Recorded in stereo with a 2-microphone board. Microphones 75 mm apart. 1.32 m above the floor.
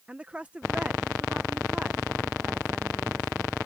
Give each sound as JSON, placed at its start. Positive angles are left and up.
{"t": 0.1, "sound": "a woman speaking", "side_deg": -15}